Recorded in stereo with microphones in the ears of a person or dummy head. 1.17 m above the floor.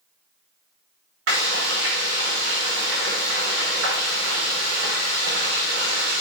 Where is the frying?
75° right (ahead or behind), 3.5 m.